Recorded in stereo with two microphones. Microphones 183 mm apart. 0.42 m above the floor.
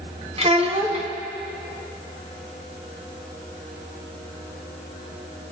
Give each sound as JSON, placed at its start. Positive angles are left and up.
{"t": 0.4, "sound": "a child speaking", "side_deg": -35, "distance_m": 1.8}